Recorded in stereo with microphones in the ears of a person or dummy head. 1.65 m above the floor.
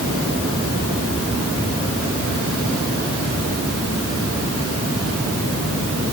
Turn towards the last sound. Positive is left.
No sound to turn to.